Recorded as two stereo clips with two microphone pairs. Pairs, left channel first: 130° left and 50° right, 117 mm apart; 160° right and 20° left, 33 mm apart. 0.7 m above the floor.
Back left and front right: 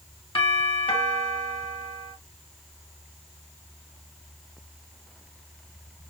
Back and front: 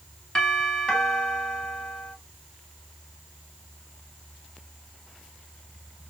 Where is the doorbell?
140° left, 2 m.